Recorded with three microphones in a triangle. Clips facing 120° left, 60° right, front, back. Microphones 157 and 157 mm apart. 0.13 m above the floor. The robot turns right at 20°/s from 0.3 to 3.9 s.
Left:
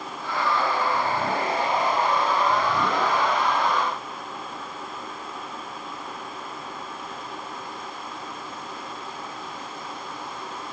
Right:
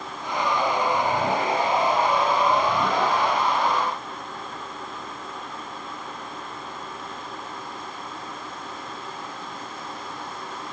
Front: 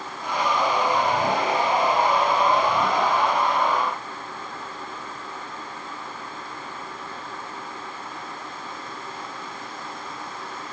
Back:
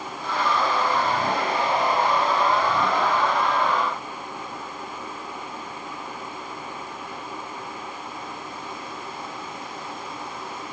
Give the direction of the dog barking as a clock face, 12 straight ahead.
I don't hear a dog barking.